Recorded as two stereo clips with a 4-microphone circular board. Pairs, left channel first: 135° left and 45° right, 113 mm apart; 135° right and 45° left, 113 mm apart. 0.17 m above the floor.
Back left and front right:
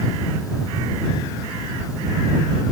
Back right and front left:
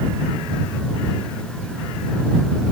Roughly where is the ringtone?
No ringtone in this recording.